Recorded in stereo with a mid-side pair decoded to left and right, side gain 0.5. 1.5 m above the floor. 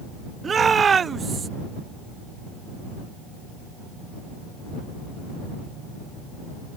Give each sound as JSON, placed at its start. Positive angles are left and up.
{"t": 0.4, "sound": "a shout", "azimuth_deg": -40}